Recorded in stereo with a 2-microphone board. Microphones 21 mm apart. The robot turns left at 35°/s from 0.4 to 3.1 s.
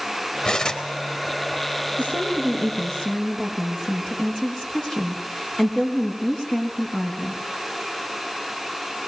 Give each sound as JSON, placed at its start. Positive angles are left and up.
{"t": 0.5, "sound": "cutlery clinking", "side_deg": 55, "distance_m": 3.0}
{"t": 2.0, "sound": "a woman speaking", "azimuth_deg": 80, "distance_m": 5.5}